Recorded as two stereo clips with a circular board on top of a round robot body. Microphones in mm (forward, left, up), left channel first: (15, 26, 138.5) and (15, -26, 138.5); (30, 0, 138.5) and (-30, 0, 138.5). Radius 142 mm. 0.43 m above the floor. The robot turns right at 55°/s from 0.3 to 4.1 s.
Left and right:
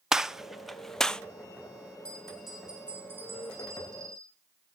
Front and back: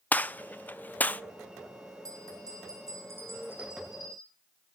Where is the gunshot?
20° right, 0.8 m; by 1.2 s 30° left, 0.8 m.